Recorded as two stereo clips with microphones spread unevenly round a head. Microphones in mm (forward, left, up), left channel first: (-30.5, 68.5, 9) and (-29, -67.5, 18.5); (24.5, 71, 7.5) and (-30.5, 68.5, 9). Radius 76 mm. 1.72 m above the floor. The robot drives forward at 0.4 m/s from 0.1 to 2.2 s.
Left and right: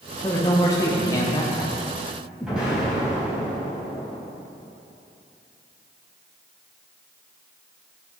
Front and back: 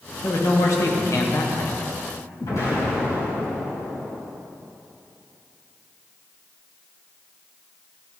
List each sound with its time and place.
0.2 s a man speaking: 20° left, 1.9 m; by 1.8 s 30° left, 1.3 m
2.4 s an explosion: 5° right, 3.5 m